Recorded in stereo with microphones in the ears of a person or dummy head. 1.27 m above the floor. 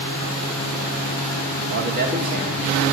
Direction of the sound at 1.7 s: 55° right (ahead or behind).